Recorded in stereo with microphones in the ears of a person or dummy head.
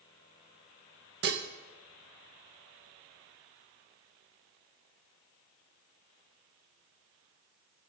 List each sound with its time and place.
1.2 s dishes clattering: 60° right (ahead or behind), 1.0 m